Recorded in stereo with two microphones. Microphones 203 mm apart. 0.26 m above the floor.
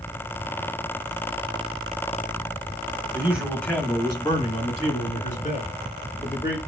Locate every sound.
3.1 s a man speaking: 15° right (ahead or behind), 1.6 m; by 6.6 s 50° left (ahead or behind), 4.5 m